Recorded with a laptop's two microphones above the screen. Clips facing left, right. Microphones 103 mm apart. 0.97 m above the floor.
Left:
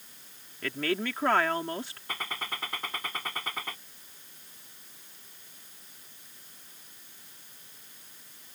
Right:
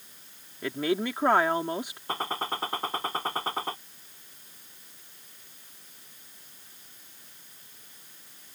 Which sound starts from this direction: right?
A gunshot, at 2.1 s.